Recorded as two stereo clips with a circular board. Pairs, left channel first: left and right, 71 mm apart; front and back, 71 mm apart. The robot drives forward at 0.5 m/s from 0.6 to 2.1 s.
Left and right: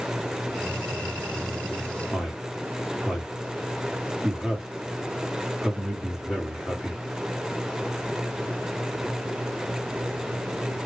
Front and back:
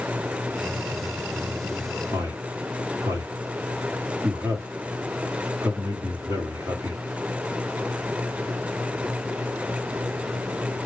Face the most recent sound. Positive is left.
turn(degrees=-165)